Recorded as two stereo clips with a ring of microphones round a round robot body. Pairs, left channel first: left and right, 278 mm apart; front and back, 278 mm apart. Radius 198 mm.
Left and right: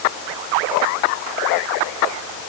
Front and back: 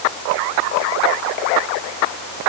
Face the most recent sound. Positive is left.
No sound to turn to.